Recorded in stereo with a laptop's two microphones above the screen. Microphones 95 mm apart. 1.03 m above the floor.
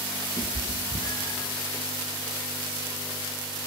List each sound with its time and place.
0.4 s a cat meowing: 40° left (ahead or behind), 4.5 m; by 1.5 s 30° left (ahead or behind), 4 m